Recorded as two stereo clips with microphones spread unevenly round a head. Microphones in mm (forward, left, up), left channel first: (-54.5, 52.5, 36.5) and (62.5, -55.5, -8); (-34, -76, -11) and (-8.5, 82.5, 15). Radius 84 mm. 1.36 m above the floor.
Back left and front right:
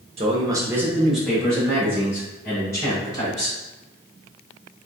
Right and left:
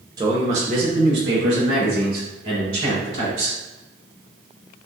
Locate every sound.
0.2 s a man speaking: 10° left, 1.0 m; by 3.6 s 65° left, 4 m